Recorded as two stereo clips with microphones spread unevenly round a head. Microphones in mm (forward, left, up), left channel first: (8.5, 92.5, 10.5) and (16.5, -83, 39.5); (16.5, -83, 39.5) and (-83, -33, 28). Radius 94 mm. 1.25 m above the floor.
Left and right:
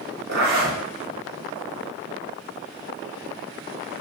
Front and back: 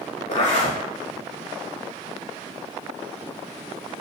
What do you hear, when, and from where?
0.3 s a zipper: 50° right, 6 m